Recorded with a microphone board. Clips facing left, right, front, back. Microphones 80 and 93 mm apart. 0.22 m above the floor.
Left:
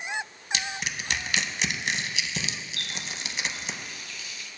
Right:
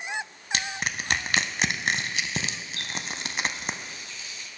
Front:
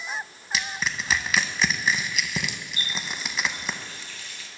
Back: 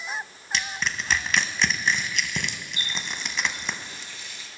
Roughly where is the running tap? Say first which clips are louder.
Right 2 dB, even; behind right.